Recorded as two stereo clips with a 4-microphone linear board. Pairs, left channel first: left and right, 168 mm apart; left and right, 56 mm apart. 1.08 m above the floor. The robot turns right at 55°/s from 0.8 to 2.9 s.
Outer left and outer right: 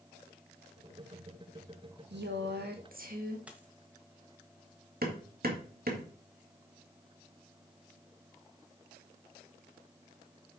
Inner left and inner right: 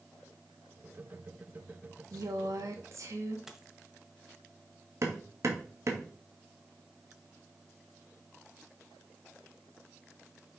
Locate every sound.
2.1 s a woman speaking: 100° right, 1.7 m; by 3.4 s 55° right, 1.7 m
3.5 s a dropped coin: 5° right (ahead or behind), 1.2 m
5.0 s hammering: 60° right (ahead or behind), 1.6 m